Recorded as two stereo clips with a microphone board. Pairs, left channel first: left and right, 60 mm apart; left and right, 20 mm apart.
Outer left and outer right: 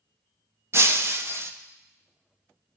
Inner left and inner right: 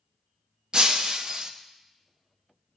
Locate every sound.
0.7 s breaking glass: 45° right (ahead or behind), 0.6 m